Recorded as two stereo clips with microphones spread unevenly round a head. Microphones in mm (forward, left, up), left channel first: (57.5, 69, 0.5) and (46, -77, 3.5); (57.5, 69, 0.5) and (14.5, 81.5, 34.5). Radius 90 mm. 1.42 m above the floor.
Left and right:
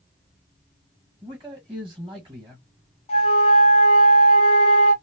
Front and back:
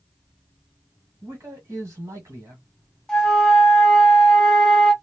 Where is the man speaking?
170° right, 1.2 m.